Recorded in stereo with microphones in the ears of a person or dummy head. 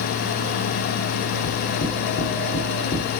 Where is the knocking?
50° left (ahead or behind), 5.5 m.